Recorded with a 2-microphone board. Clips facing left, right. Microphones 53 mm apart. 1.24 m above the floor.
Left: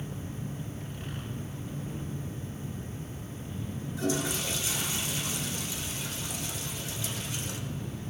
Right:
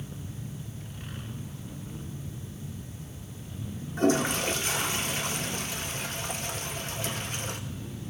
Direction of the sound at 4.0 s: 45° right (ahead or behind).